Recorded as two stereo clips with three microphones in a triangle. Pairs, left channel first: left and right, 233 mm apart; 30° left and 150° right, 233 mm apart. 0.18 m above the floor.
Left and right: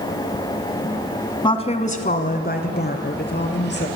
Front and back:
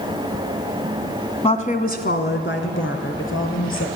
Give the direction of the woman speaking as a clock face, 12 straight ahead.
10 o'clock.